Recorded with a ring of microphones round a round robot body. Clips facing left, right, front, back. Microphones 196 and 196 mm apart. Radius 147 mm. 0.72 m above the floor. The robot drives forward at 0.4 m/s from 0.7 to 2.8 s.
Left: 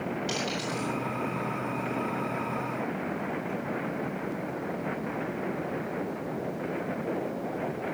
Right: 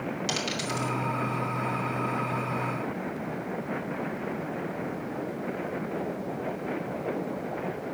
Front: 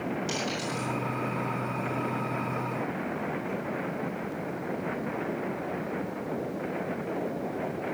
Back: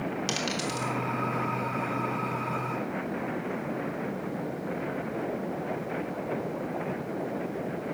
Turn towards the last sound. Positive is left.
turn(degrees=-160)